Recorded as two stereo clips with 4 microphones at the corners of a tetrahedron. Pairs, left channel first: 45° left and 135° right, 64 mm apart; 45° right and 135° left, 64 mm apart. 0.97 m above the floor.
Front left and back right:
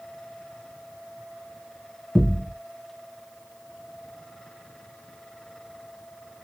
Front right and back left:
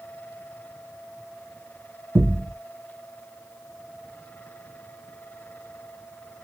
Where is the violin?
I don't hear a violin.